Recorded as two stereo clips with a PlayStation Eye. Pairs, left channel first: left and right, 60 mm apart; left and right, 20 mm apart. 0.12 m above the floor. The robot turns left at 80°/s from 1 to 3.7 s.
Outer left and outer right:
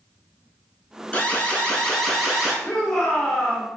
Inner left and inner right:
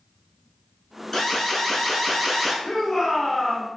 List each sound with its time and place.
1.1 s an alarm: 25° left (ahead or behind), 0.8 m; by 2.5 s 10° right (ahead or behind), 0.8 m
2.6 s a shout: 20° left (ahead or behind), 1.1 m; by 3.7 s centre (ahead or behind), 1.1 m